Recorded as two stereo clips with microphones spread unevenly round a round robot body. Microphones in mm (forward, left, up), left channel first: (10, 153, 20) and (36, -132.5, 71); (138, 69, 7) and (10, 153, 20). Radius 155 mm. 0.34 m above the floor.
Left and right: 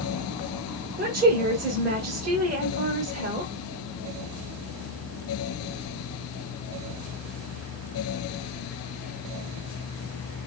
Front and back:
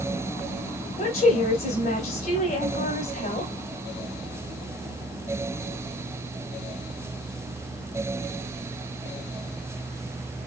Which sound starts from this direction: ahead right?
A woman speaking, at 1.0 s.